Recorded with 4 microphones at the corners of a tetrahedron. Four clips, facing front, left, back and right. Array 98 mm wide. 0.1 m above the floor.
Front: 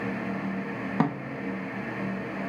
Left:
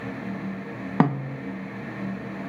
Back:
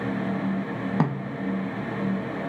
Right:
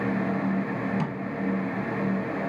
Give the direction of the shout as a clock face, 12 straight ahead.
I don't hear a shout.